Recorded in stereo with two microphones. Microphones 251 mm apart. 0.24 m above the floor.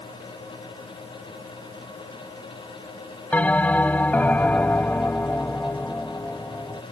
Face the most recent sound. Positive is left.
turn(degrees=5)  # may be behind; listen again after turning